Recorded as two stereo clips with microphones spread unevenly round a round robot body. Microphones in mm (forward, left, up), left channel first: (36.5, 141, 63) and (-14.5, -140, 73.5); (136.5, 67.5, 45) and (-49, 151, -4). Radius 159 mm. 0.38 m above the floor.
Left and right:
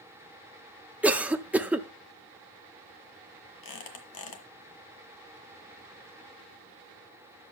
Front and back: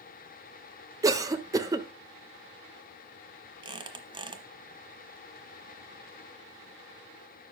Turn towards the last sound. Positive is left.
turn(degrees=90)